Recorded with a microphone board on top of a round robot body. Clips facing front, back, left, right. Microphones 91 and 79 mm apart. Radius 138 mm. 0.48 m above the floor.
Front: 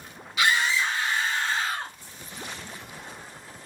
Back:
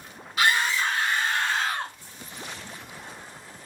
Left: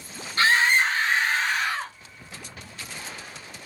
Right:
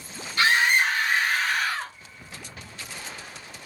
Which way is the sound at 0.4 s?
140° left.